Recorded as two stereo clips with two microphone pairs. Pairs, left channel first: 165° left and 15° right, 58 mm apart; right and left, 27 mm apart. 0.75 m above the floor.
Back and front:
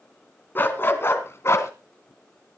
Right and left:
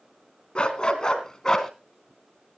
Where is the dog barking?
140° right, 1.9 m; by 1.7 s 160° right, 1.8 m.